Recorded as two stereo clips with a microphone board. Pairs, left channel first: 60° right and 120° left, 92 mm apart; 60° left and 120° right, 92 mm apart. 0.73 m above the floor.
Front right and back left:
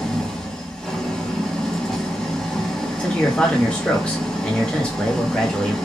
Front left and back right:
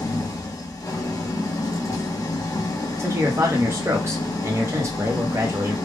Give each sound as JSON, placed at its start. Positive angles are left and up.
{"t": 0.0, "sound": "an engine running", "azimuth_deg": 25, "distance_m": 1.0}
{"t": 3.0, "sound": "a man speaking", "azimuth_deg": -125, "distance_m": 0.8}